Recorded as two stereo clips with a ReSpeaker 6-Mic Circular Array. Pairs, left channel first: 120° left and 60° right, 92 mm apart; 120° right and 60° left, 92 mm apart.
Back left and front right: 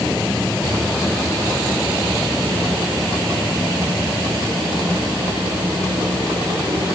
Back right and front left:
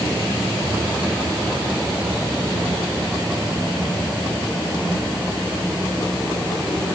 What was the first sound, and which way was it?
Only background noise.